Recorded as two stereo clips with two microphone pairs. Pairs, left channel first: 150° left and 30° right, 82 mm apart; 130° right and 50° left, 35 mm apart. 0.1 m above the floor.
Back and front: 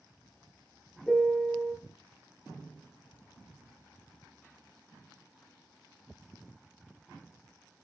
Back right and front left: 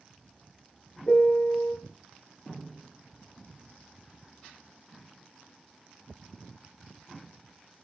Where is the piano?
145° right, 0.9 m.